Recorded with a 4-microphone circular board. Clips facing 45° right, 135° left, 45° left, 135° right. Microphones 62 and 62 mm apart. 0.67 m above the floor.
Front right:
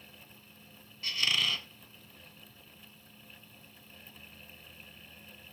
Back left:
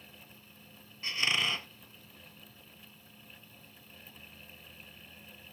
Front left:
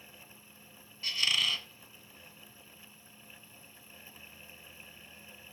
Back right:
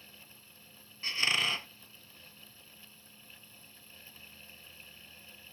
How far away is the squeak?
About 0.6 m.